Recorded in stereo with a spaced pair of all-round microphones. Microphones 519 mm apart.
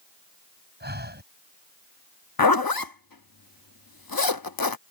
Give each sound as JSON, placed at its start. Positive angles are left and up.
{"t": 0.8, "sound": "breathing", "side_deg": -20}
{"t": 2.4, "sound": "a zipper", "side_deg": 40}